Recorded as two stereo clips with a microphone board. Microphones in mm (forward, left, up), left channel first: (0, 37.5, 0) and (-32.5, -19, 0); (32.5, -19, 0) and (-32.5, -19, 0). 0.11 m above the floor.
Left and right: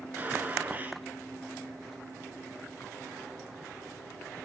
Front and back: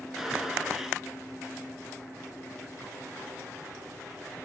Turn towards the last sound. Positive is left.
turn(degrees=-100)